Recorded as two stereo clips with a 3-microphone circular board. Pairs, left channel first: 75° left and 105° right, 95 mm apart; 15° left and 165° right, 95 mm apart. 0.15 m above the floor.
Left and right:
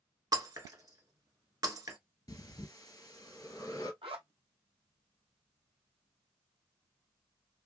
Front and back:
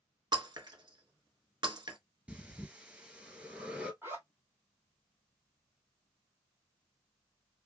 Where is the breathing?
120° left, 1.0 m.